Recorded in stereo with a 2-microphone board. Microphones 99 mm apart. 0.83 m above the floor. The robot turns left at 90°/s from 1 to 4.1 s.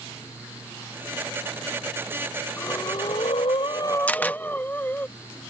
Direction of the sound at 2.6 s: 160° left.